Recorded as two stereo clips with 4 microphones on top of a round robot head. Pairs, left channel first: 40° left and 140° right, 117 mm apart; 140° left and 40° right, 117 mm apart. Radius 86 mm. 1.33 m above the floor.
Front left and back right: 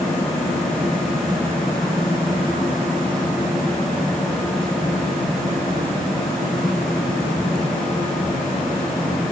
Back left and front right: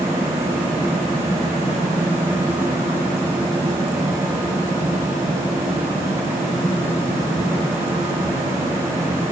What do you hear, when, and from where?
Only background noise.